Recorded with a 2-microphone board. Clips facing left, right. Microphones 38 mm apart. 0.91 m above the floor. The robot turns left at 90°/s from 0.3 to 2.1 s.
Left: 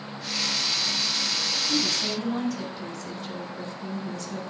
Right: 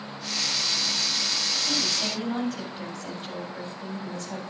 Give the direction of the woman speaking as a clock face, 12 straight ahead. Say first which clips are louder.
Left 1 dB; 4 o'clock.